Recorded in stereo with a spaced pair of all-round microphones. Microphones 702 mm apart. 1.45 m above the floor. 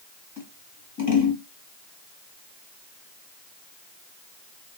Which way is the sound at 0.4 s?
25° left (ahead or behind).